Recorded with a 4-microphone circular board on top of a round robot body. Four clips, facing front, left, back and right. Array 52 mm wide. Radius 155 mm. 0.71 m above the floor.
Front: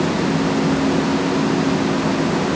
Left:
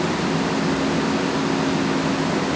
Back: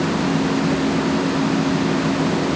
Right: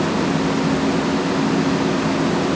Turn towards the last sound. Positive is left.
No sound to turn to.